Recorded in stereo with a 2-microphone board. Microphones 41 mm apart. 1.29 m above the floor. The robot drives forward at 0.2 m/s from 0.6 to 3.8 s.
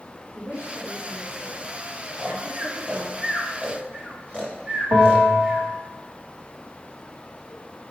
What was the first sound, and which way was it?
A woman speaking, 85° right.